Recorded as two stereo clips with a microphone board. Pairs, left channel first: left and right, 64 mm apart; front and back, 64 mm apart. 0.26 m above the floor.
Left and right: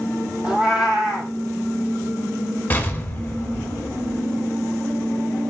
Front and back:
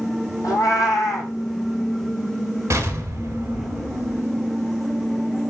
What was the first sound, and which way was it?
A cat meowing, 15° right.